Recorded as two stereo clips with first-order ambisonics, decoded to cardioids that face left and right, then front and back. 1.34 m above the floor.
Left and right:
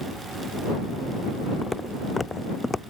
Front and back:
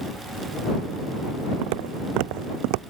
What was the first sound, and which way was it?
Footsteps, 170° left.